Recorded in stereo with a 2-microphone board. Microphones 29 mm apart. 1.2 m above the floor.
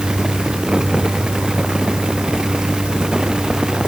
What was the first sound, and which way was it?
Only background noise.